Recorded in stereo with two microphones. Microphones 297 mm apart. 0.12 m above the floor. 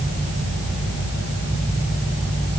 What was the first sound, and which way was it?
Only background noise.